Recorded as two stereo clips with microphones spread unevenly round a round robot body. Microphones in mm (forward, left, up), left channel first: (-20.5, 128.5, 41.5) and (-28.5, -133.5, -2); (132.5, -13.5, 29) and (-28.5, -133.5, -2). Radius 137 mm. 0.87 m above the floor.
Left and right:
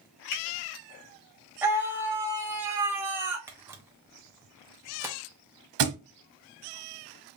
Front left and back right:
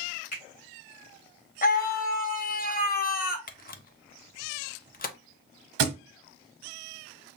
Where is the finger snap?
100° left, 2.5 m.